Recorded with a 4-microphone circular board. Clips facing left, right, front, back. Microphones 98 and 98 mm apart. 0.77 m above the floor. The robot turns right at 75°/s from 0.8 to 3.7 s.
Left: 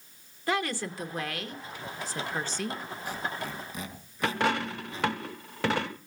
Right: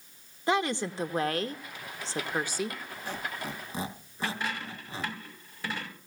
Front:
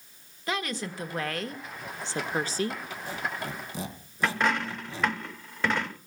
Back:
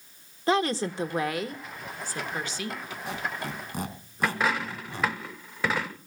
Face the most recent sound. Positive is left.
turn(degrees=95)